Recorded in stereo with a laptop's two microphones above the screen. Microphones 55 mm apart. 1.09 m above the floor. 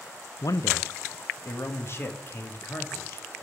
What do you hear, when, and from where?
0.4 s a man speaking: 70° left (ahead or behind), 0.5 m; by 3.3 s 35° left (ahead or behind), 2 m